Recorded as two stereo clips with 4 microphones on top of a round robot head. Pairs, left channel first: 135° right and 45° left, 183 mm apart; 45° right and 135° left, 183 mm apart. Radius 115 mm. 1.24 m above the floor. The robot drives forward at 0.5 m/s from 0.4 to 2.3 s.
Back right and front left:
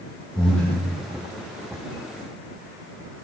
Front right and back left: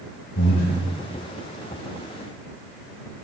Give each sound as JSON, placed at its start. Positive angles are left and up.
{"t": 0.3, "sound": "breathing", "azimuth_deg": -50, "distance_m": 5.0}